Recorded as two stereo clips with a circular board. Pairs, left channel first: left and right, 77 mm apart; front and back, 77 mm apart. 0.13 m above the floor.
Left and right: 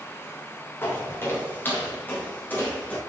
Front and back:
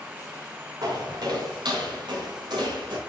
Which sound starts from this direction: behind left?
Footsteps, at 0.8 s.